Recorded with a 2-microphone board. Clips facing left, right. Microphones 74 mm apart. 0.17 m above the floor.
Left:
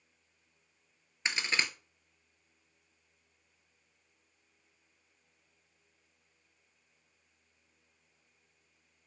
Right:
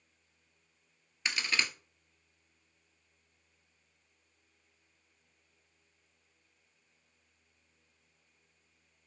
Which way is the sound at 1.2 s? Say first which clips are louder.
Left 1 dB; 25° left (ahead or behind).